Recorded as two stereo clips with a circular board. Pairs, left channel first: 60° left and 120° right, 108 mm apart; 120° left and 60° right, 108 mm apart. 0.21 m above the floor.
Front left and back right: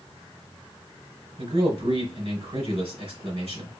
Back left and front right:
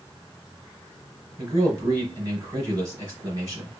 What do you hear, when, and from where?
1.4 s a man speaking: 115° right, 3 m